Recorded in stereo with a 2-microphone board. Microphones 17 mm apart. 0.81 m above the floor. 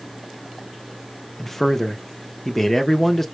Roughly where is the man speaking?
Centre.